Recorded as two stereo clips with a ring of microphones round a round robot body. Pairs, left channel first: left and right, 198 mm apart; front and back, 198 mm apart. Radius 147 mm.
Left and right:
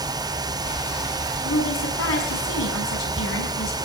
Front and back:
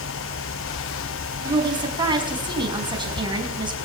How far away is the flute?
I don't hear a flute.